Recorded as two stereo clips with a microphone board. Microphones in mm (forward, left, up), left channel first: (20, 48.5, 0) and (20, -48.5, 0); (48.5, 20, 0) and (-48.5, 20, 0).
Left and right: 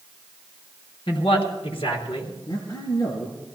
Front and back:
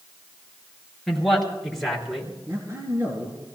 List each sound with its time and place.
1.1 s a man speaking: 90° left, 5 m
2.5 s a man speaking: 125° left, 3.5 m